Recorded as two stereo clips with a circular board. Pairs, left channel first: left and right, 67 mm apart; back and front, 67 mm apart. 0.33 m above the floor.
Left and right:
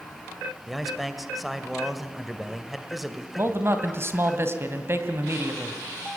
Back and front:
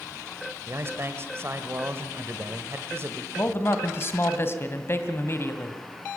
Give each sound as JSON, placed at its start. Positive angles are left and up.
{"t": 0.7, "sound": "a man speaking", "azimuth_deg": -5, "distance_m": 1.8}
{"t": 3.4, "sound": "a man speaking", "azimuth_deg": -135, "distance_m": 2.0}